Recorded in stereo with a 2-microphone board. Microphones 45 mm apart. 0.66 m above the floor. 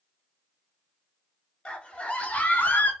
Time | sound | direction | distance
1.6 | a scream | 20° left (ahead or behind) | 1.4 m